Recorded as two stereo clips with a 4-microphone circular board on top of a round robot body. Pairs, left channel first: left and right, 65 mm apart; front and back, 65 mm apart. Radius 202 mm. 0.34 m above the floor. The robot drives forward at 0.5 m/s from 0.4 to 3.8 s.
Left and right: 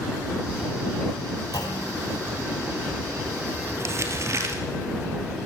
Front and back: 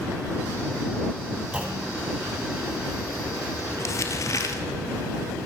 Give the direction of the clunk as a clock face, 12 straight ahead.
8 o'clock.